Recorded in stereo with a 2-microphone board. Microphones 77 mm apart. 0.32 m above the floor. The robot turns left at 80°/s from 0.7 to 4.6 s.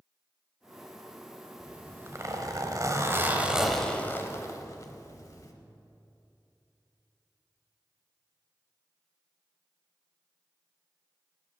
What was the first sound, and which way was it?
A zipper, 10° right.